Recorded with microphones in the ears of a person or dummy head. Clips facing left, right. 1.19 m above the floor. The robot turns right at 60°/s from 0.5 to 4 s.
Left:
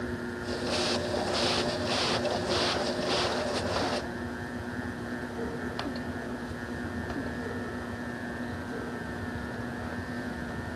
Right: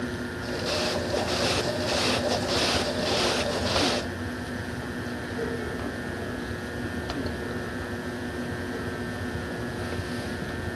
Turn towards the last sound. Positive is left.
No sound to turn to.